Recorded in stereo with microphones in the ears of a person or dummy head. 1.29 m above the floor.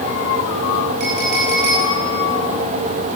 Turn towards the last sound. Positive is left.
turn(degrees=-55)  # may be behind; listen again after turning